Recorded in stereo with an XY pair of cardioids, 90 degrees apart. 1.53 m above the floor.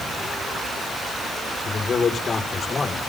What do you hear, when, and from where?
1.6 s a man speaking: 45° left, 5 m; by 3.0 s 35° left, 5 m